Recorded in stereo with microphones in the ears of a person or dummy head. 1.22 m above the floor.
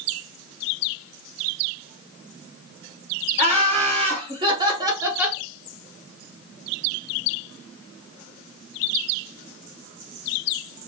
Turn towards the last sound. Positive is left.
turn(degrees=-5)  # may be behind; listen again after turning